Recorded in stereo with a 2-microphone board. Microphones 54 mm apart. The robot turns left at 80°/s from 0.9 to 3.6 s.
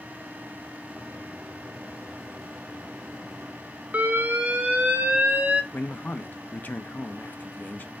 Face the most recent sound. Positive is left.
turn(degrees=35)  # may be behind; listen again after turning